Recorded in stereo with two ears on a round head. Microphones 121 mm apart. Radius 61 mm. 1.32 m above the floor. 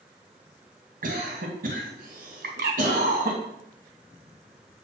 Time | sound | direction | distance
1.0 | a cough | 65° right (ahead or behind) | 2 m
2.4 | a bird | 75° right (ahead or behind) | 4 m